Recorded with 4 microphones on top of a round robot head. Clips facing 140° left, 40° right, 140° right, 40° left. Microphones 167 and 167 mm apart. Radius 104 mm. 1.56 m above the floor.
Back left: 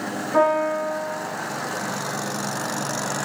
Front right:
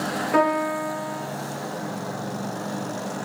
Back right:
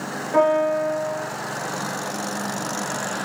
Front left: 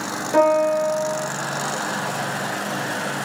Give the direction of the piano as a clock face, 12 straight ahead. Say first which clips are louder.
Back left 3 dB, front left 2 dB; 1 o'clock.